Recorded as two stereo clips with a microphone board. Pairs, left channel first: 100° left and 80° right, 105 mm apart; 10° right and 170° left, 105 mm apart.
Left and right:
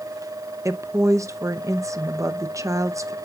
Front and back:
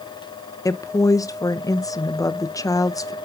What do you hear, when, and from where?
0.7 s a woman speaking: 40° right, 0.8 m